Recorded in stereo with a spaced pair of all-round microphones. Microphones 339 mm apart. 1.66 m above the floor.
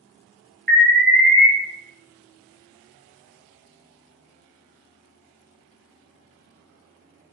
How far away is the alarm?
About 1.4 m.